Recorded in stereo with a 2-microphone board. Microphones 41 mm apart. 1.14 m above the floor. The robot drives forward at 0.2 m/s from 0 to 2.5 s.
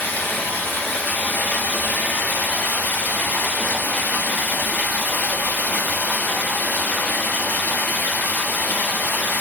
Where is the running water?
50° left (ahead or behind), 1.6 m; by 9.4 s 45° left (ahead or behind), 1.8 m.